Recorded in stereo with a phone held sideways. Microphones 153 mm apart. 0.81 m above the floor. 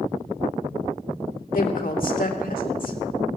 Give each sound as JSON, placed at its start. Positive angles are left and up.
{"t": 1.5, "sound": "a woman speaking", "side_deg": 65, "distance_m": 2.5}